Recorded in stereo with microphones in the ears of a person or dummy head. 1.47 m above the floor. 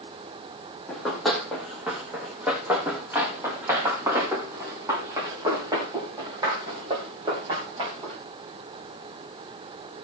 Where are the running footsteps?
5° left (ahead or behind), 3.5 m; by 8.2 s 30° right (ahead or behind), 6.5 m.